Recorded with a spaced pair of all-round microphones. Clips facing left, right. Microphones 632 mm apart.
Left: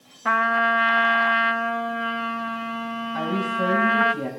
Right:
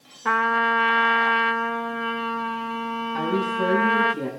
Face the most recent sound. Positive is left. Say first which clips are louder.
# right 2 dB
turn(degrees=10)  # may be behind; listen again after turning